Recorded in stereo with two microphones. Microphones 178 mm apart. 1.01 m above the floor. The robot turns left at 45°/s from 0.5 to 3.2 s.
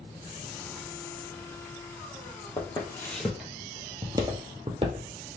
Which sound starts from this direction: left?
Footsteps, at 2.6 s.